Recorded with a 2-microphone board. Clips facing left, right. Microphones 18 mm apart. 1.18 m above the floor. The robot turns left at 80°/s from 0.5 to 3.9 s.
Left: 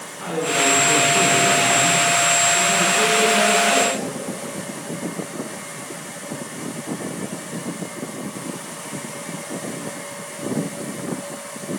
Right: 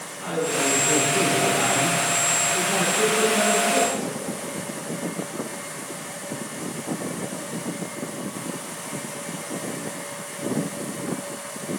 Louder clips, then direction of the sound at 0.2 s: Left 4 dB; 40° left.